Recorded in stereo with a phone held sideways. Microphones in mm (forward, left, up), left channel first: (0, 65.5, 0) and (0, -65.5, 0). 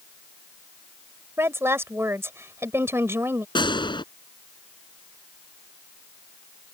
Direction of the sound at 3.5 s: 35° left (ahead or behind).